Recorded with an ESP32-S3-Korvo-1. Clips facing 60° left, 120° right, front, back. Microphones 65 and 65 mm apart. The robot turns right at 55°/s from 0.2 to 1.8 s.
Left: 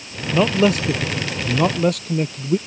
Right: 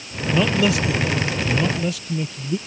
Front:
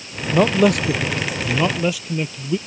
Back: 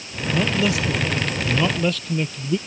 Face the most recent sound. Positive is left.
turn(degrees=80)